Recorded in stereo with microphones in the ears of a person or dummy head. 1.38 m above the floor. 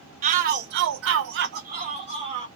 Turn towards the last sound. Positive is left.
turn(degrees=-25)  # may be behind; listen again after turning